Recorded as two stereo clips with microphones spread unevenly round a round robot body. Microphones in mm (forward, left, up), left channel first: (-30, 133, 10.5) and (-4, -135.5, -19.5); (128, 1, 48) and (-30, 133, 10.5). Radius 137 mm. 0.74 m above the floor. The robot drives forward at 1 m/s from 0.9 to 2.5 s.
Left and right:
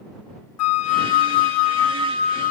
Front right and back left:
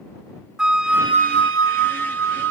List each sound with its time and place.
0.6 s a flute: 55° left; by 2.5 s 160° left